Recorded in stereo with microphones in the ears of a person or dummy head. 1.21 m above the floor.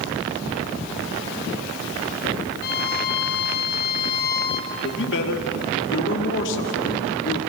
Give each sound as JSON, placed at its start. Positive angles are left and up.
{"t": 2.6, "sound": "a violin", "side_deg": 55, "distance_m": 1.5}
{"t": 4.7, "sound": "a man speaking", "side_deg": 65, "distance_m": 2.5}